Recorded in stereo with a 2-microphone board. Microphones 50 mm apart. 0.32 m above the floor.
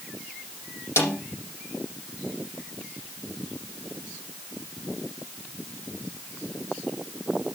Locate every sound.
1.0 s a snare drum: 60° left (ahead or behind), 7 m